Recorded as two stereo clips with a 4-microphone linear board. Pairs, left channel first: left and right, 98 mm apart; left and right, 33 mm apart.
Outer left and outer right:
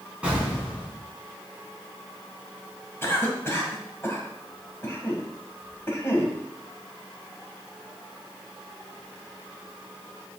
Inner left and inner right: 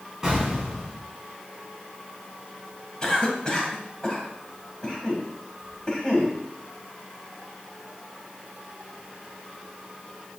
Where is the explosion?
10° right (ahead or behind), 3 m.